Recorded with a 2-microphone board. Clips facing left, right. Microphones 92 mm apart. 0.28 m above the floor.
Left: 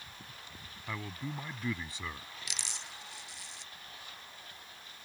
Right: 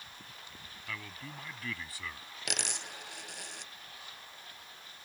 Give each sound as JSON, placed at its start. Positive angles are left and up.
{"t": 0.9, "sound": "a man speaking", "side_deg": 25}
{"t": 2.5, "sound": "a dropped coin", "side_deg": -65}